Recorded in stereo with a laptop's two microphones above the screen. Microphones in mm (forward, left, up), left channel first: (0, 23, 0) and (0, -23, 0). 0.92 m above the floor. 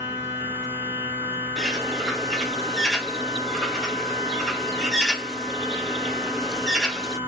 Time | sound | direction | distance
0.0 | a machine running | 70° left (ahead or behind) | 1.3 m
1.6 | a bird | 10° left (ahead or behind) | 0.6 m